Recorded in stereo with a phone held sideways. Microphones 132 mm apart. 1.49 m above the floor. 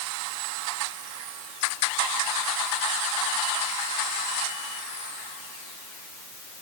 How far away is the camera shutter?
No camera shutter in this recording.